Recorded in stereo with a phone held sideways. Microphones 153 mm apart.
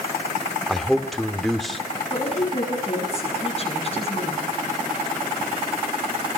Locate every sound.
0.7 s a man speaking: centre (ahead or behind), 2 m
2.1 s a woman speaking: 40° left (ahead or behind), 7.5 m